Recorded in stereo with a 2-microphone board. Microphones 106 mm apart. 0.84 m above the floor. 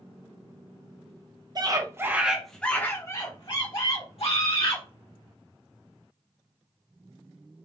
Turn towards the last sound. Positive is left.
turn(degrees=65)  # may be behind; listen again after turning